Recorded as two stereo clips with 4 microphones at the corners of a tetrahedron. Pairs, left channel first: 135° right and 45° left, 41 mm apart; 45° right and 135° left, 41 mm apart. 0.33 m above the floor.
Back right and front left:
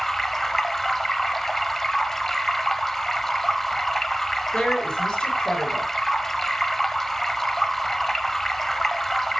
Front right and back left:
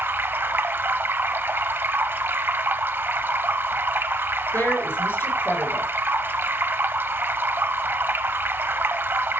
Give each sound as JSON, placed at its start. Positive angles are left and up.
{"t": 0.0, "sound": "running water", "azimuth_deg": 140, "distance_m": 0.8}
{"t": 4.5, "sound": "a woman speaking", "azimuth_deg": -65, "distance_m": 5.0}